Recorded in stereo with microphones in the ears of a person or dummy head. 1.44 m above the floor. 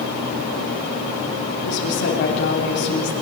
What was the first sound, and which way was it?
A woman speaking, 70° left (ahead or behind).